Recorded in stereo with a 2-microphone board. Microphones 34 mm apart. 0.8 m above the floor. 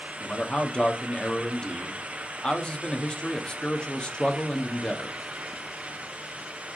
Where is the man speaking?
25° left (ahead or behind), 1.2 m.